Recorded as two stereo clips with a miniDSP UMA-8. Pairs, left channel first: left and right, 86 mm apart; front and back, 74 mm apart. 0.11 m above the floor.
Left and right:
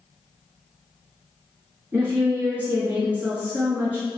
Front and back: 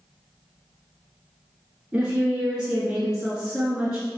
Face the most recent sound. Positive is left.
turn(degrees=-115)